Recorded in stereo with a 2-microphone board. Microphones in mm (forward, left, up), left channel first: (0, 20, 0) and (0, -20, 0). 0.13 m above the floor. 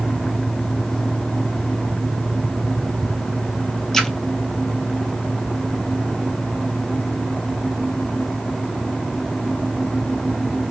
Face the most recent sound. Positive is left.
turn(degrees=10)  # may be behind; listen again after turning